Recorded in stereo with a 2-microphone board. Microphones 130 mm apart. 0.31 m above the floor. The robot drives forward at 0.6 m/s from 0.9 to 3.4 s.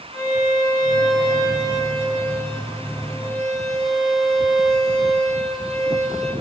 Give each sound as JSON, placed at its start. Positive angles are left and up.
{"t": 0.1, "sound": "a violin", "side_deg": 35, "distance_m": 8.0}